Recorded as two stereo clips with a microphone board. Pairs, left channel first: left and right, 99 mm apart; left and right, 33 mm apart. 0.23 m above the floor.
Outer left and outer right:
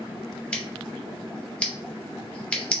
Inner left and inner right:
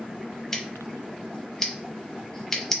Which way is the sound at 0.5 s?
10° left (ahead or behind).